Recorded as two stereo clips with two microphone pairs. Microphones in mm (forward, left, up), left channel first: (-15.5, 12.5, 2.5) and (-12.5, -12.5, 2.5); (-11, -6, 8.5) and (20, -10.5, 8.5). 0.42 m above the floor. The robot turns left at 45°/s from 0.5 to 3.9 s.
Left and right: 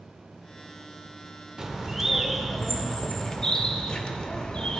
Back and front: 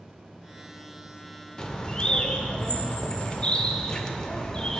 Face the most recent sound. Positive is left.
turn(degrees=120)